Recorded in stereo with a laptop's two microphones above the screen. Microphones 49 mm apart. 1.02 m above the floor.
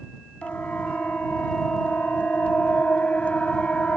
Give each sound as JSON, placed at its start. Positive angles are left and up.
{"t": 0.4, "sound": "a siren", "side_deg": 30}